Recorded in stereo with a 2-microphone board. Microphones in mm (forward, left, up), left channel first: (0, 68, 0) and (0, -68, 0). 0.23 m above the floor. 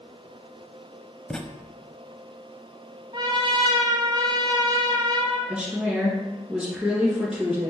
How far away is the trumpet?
About 1.0 m.